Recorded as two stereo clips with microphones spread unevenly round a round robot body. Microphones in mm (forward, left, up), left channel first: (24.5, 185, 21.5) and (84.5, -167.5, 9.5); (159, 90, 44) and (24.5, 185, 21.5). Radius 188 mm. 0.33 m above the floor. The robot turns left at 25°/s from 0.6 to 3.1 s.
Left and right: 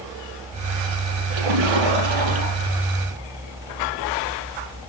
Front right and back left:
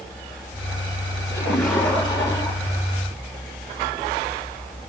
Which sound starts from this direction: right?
A splash, at 1.3 s.